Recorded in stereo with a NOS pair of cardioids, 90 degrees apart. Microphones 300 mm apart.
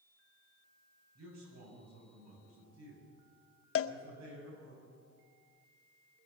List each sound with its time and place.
1.1 s a man speaking: 60° right, 8 m
3.8 s a cowbell: 50° left, 0.7 m